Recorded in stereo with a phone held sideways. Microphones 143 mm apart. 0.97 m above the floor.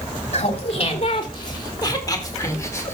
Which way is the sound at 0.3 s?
45° left (ahead or behind).